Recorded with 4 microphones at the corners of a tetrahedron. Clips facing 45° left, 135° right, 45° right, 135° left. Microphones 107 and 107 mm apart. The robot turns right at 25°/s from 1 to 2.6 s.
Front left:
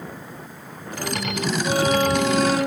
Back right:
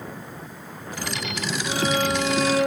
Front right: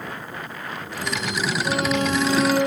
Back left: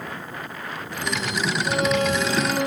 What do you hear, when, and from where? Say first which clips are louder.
1.6 s a violin: front left 4 dB, back left 1 dB; 20° right, 2 m; by 2.6 s 5° left, 2 m